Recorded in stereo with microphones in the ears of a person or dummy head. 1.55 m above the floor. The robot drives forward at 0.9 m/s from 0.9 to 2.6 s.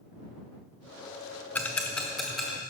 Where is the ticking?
10° left (ahead or behind), 0.6 m; by 2.6 s 5° left (ahead or behind), 1.4 m.